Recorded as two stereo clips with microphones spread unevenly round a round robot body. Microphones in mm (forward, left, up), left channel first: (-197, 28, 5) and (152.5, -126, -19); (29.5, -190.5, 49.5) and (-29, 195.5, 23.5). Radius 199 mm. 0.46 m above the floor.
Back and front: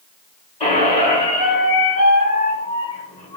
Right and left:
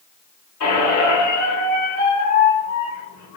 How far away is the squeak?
About 1.1 m.